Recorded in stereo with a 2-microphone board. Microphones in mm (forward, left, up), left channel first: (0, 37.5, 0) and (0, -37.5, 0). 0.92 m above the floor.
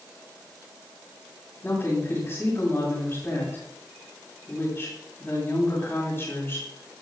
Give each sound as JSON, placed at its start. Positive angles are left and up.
{"t": 1.6, "sound": "a woman speaking", "side_deg": 35, "distance_m": 7.5}